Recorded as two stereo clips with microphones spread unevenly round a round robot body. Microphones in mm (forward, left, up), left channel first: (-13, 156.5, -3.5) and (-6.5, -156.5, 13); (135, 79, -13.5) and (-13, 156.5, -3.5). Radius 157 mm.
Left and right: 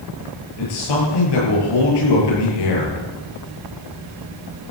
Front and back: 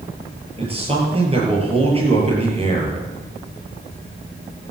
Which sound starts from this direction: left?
A man speaking, at 0.6 s.